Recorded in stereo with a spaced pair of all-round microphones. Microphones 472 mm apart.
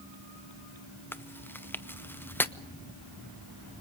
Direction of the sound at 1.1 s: 5° left (ahead or behind).